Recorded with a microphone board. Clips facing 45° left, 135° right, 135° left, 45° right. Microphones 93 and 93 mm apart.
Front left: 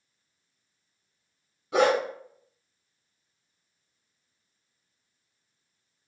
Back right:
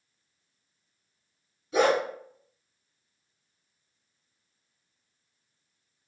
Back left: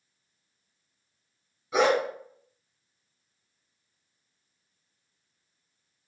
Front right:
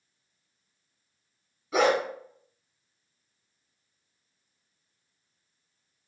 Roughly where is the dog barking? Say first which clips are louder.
Front left 1 dB, even; ahead left.